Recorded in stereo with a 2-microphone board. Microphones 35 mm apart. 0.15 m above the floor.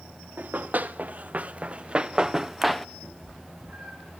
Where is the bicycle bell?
No bicycle bell in this recording.